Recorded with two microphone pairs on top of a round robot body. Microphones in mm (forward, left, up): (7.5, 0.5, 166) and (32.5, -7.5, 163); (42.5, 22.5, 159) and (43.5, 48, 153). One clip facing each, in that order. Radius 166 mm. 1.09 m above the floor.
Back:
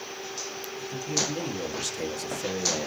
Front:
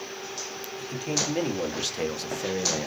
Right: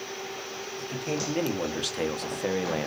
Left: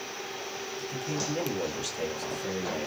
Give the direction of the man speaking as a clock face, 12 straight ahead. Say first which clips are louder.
Front 1 dB, right 3 dB; 2 o'clock.